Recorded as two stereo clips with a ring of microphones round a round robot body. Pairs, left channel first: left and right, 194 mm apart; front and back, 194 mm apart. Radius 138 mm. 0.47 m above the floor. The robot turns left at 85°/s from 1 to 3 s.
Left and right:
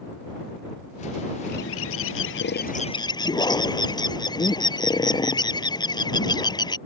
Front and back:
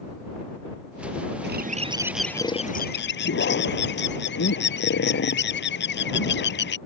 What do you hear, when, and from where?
1.4 s a bird: 155° left; by 6.8 s 20° left